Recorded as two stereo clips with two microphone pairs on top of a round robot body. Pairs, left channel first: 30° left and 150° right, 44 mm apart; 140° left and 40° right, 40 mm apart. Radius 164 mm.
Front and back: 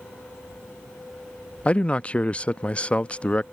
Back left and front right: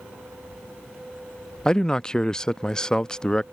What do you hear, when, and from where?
1.6 s a man speaking: 85° left